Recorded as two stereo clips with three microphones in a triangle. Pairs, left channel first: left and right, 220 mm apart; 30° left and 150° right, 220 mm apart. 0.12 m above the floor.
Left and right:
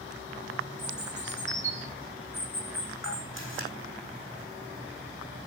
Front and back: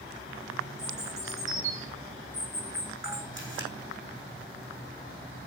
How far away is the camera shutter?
About 4 m.